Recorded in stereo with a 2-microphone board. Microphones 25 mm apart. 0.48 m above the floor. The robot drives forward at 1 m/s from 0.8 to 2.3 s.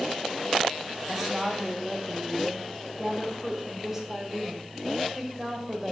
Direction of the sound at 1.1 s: 10° right (ahead or behind).